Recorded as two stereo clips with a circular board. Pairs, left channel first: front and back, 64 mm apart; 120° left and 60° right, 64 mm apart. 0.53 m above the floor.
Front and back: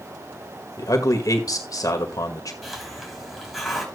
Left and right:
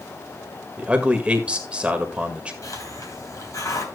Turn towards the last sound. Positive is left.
turn(degrees=90)